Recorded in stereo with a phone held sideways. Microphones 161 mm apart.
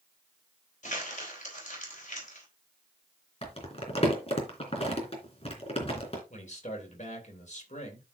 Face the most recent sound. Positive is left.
turn(degrees=50)  # may be behind; listen again after turning